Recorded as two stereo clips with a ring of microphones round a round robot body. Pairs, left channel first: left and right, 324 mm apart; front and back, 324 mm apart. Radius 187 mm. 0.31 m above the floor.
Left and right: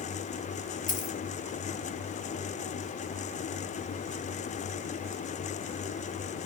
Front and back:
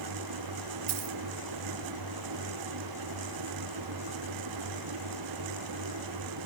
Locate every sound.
0.9 s a dropped coin: 155° left, 4.5 m